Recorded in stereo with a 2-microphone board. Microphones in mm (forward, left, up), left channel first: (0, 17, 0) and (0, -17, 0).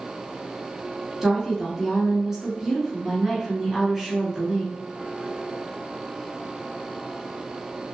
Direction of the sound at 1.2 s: 15° right (ahead or behind).